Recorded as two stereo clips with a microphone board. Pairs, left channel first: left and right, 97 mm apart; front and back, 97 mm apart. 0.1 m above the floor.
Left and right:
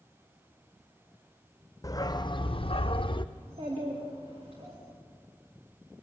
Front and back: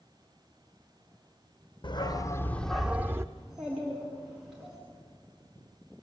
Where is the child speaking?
95° right, 8.5 m.